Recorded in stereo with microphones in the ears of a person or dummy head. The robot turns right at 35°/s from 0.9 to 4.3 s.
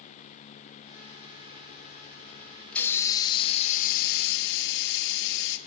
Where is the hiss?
10° left, 2.5 m; by 5.6 s 65° left, 2.5 m.